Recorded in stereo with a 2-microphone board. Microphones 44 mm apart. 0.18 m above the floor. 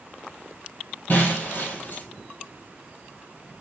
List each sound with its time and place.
1.1 s breaking glass: 50° left (ahead or behind), 1.5 m